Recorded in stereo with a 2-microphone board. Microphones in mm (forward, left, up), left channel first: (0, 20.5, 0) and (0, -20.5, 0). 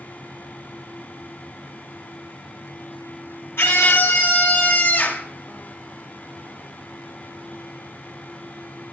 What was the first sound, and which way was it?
A scream, 75° left (ahead or behind).